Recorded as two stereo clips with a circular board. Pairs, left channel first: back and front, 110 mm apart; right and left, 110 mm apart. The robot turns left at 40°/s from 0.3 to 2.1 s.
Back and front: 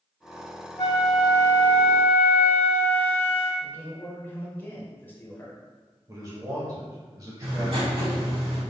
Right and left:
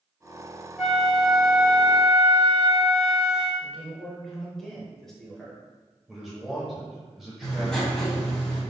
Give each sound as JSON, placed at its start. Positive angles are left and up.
{"t": 0.8, "sound": "a flute", "azimuth_deg": -175, "distance_m": 1.2}
{"t": 3.6, "sound": "a man speaking", "azimuth_deg": -170, "distance_m": 1.2}
{"t": 6.1, "sound": "a man speaking", "azimuth_deg": 5, "distance_m": 1.1}
{"t": 7.4, "sound": "writing", "azimuth_deg": -5, "distance_m": 1.7}